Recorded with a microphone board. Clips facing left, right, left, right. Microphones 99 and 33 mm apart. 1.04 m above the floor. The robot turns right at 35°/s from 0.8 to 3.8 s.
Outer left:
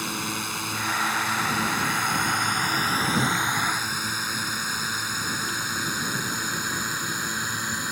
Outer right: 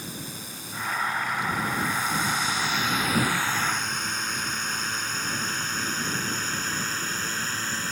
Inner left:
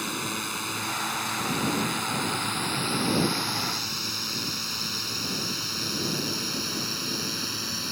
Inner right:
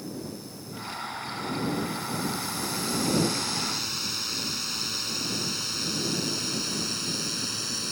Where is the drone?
75° left (ahead or behind); by 7.9 s 15° left (ahead or behind).